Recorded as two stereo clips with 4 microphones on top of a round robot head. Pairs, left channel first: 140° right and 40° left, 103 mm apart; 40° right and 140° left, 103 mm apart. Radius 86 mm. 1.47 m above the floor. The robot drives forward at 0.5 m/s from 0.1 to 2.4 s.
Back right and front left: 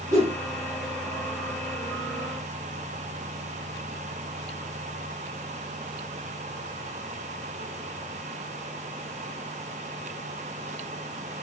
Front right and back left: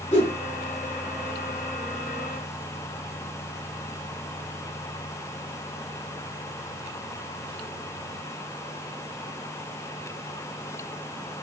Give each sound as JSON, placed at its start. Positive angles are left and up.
{"t": 0.1, "sound": "a whoosh", "azimuth_deg": -20, "distance_m": 2.5}